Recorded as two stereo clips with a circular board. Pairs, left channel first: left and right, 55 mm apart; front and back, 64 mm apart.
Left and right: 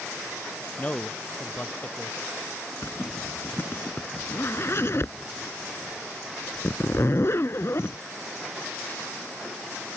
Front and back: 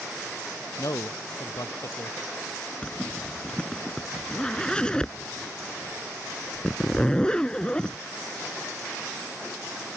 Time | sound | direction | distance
0.8 | a man speaking | 25° left | ?
2.8 | a zipper | 70° left | ?